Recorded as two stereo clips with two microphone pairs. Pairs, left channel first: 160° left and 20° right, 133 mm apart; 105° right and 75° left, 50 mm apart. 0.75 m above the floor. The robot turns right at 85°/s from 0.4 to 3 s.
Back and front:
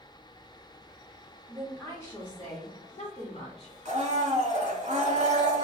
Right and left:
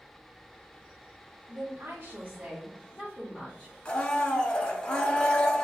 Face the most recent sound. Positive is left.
turn(degrees=-40)